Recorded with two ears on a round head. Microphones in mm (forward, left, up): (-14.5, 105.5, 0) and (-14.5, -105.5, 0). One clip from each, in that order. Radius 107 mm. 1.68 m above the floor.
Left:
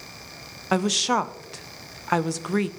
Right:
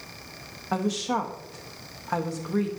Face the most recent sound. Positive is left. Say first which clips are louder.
# left 5 dB
turn(degrees=75)  # may be behind; listen again after turning